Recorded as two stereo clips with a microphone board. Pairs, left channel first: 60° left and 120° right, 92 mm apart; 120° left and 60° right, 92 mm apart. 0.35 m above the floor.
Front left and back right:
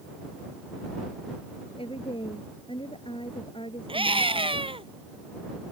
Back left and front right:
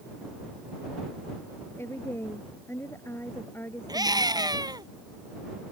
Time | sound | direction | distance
1.8 | a woman speaking | 55° left | ?
3.9 | a scream | 105° right | ?